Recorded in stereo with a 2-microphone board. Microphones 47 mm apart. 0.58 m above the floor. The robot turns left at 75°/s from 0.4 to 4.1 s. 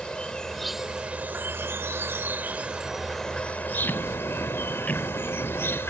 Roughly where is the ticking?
Left.